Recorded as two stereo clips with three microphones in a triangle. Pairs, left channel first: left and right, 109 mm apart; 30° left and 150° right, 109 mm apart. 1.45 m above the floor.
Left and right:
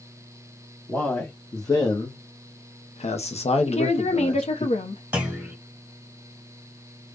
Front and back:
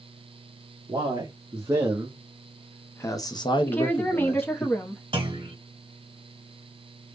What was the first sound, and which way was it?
A man speaking, 160° left.